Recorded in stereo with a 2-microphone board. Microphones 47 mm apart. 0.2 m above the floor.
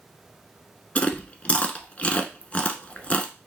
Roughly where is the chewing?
Left.